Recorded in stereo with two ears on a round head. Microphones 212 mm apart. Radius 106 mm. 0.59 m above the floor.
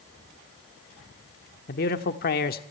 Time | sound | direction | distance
1.7 | a man speaking | 40° left (ahead or behind) | 1.2 m